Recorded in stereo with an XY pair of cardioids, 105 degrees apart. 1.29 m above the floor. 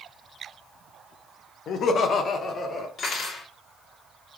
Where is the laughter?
65° left, 0.7 m; by 2.9 s 50° left, 1.4 m.